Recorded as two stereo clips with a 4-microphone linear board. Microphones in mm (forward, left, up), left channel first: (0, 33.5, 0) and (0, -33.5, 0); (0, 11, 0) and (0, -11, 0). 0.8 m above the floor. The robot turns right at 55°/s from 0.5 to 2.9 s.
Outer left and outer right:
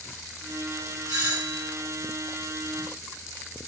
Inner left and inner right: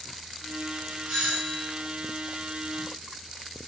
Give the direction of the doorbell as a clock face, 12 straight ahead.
4 o'clock.